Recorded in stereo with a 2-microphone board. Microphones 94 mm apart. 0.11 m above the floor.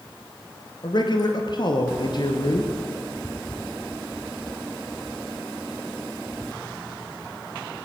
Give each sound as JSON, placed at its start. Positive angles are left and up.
{"t": 0.8, "sound": "a man speaking", "side_deg": 50, "distance_m": 2.0}